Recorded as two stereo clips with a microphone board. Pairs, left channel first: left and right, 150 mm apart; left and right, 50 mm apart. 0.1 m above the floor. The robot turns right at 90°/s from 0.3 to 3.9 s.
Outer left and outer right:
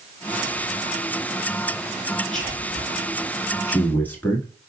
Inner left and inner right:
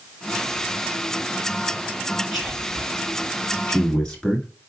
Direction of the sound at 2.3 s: Centre (ahead or behind).